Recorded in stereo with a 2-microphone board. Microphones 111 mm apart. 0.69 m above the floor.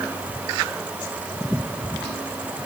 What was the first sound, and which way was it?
Only background noise.